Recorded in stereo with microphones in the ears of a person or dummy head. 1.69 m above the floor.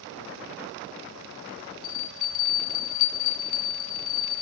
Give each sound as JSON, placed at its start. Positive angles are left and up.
{"t": 1.8, "sound": "a bell", "side_deg": 25, "distance_m": 0.6}